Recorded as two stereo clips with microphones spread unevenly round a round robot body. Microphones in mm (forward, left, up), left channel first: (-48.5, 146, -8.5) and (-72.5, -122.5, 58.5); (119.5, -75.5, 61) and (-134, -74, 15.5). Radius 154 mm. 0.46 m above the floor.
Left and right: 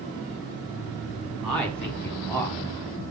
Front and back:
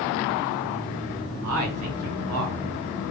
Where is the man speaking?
170° left, 5 m; by 2.6 s 160° left, 5 m.